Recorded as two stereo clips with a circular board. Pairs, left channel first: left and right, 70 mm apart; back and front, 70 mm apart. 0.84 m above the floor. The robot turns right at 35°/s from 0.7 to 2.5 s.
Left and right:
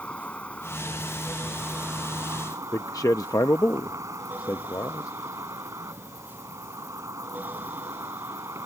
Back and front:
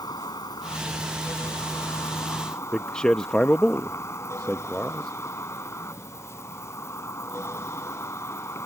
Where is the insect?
165° left; by 8.7 s 130° right.